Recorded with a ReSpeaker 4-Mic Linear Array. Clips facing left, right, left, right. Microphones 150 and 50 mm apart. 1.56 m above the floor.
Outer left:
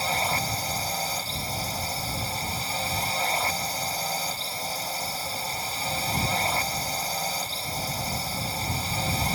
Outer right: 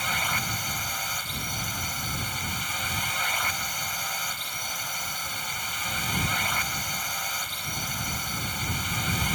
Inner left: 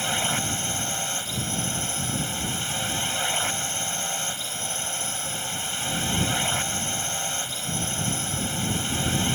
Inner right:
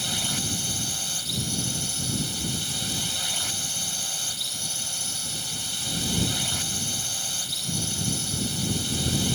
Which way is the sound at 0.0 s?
35° left (ahead or behind).